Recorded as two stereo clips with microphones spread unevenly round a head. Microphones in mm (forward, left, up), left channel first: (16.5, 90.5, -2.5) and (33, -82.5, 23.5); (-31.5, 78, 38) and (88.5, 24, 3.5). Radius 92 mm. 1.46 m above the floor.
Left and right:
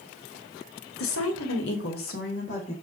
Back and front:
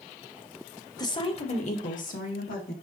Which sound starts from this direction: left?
A woman speaking, at 1.0 s.